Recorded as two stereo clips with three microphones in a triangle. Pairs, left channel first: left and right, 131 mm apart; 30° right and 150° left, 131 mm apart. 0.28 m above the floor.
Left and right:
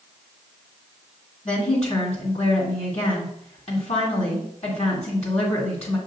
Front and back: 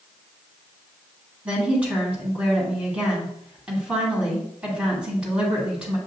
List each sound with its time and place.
1.4 s a woman speaking: 70° left, 2.0 m